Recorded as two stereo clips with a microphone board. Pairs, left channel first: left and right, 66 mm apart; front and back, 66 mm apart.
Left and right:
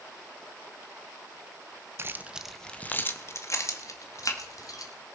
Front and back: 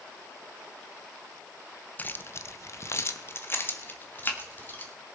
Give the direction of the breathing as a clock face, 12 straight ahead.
I don't hear breathing.